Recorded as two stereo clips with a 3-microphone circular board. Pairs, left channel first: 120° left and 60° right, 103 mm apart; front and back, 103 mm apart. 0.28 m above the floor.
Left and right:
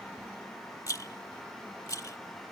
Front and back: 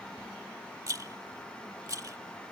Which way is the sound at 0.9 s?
155° left.